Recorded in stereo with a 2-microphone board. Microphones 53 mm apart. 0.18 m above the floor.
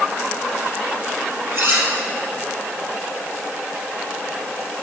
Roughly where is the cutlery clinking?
Right.